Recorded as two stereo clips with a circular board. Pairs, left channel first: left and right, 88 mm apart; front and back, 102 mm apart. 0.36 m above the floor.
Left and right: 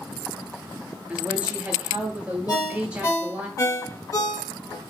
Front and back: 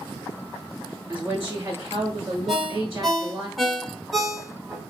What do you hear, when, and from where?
1.1 s a woman speaking: 135° right, 1.1 m
2.5 s a ringtone: 90° left, 0.8 m